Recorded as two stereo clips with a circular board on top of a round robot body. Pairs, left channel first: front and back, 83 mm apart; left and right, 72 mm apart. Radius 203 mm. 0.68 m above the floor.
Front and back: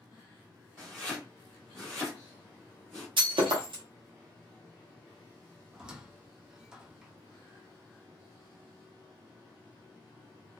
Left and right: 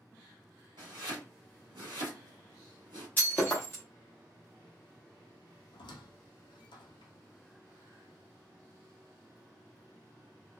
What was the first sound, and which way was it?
Chopping, 85° right.